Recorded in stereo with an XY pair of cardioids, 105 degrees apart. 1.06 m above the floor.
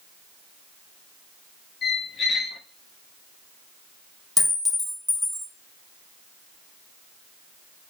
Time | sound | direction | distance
1.8 | a squeak | 55° left | 0.9 m
4.4 | a clink | 5° left | 1.3 m